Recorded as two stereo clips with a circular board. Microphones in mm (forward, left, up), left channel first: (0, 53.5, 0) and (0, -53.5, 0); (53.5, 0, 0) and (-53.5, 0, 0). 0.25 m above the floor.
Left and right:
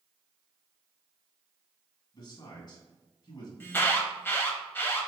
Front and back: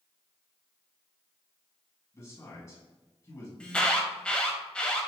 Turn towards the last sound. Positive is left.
turn(degrees=65)